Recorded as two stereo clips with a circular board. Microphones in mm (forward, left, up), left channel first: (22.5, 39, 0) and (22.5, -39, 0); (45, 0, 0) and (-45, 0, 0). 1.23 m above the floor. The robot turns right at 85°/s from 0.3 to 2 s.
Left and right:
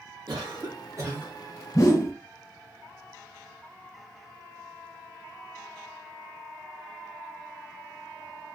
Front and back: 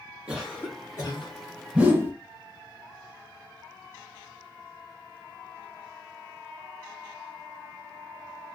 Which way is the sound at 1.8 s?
105° left.